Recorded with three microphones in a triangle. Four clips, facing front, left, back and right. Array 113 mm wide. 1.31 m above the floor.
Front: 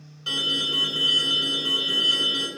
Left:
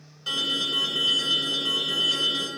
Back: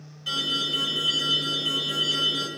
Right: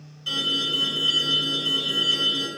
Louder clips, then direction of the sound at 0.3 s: Right 2 dB, front 1 dB; 40° left.